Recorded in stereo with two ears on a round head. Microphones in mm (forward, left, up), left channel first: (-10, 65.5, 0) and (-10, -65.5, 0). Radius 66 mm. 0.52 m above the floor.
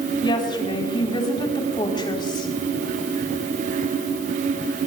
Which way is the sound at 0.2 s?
35° left (ahead or behind).